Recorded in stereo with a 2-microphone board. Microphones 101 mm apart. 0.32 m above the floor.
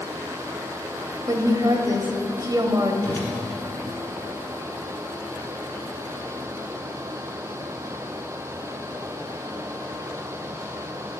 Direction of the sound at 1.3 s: 40° right (ahead or behind).